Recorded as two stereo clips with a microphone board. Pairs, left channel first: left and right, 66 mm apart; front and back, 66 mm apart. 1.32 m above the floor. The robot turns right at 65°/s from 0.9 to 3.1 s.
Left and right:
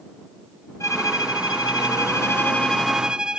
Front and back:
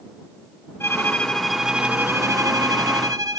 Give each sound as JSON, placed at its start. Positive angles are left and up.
{"t": 0.8, "sound": "a violin", "azimuth_deg": 50}